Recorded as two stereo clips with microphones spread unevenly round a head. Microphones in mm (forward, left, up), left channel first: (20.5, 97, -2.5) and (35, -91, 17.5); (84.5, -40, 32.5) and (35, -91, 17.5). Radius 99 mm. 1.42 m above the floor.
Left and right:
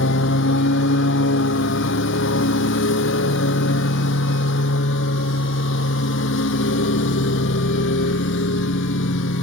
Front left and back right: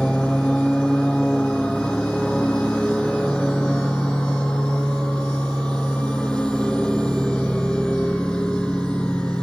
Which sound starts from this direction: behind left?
A lawn mower, at 0.0 s.